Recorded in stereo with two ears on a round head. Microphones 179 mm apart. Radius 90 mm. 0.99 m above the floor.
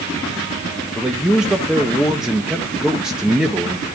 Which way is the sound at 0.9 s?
5° right (ahead or behind).